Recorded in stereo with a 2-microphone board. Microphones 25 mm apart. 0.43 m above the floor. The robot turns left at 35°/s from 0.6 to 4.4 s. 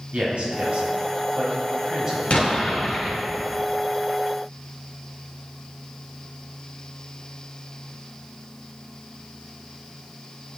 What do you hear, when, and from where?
0.1 s a man speaking: 60° right (ahead or behind), 3 m; by 2.2 s 15° right (ahead or behind), 3 m
2.3 s an explosion: 65° left, 3 m; by 3.2 s 30° left, 3 m